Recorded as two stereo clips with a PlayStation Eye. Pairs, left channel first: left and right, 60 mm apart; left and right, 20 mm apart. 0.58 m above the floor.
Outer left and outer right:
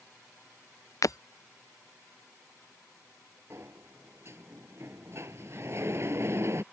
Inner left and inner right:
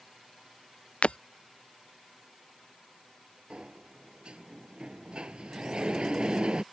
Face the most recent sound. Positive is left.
turn(degrees=-45)  # may be behind; listen again after turning